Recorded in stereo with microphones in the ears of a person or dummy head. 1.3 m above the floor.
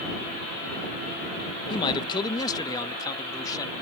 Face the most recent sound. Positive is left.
turn(degrees=20)  # may be behind; listen again after turning